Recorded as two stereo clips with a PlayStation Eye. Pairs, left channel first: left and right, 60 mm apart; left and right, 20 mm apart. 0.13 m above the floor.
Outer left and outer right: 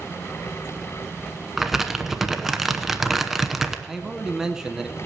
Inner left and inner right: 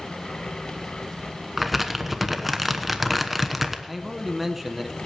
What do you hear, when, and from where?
1.6 s crumpling: 5° right (ahead or behind), 1.0 m
3.9 s a man speaking: 10° right (ahead or behind), 1.1 m